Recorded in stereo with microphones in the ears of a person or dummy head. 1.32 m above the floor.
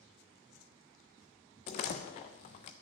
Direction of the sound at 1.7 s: 30° left (ahead or behind).